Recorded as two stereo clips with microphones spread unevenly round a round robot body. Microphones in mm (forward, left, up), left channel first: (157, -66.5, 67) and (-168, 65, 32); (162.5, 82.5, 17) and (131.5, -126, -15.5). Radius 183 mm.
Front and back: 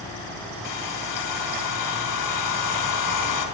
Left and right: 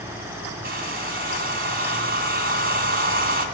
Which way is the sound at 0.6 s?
55° right.